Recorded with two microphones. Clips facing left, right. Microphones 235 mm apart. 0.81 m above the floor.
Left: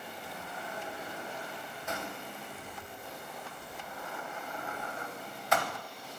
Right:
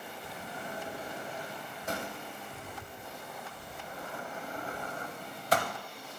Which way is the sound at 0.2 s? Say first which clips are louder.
Right 3 dB; 35° right (ahead or behind).